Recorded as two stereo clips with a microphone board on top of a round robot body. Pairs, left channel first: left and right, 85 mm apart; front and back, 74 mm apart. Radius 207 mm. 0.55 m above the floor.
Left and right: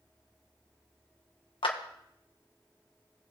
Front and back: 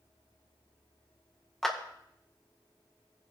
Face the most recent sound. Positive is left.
turn(degrees=85)